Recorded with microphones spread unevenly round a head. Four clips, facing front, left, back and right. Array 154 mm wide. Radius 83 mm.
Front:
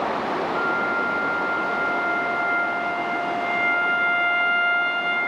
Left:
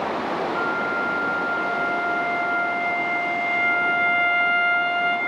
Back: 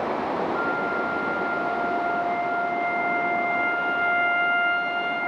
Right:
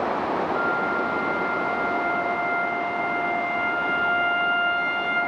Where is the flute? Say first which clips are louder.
Even, front 2 dB; 50° left, 4.5 m.